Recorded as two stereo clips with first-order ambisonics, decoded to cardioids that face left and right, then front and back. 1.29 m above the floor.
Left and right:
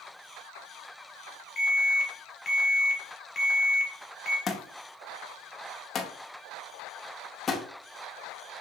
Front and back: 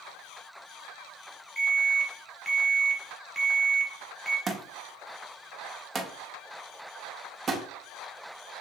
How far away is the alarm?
About 1.1 m.